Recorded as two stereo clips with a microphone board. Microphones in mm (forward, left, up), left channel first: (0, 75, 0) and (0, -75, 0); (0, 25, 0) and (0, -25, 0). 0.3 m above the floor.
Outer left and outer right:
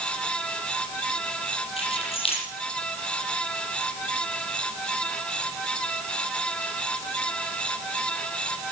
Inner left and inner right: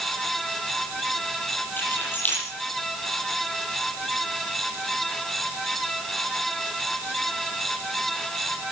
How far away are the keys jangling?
About 8 m.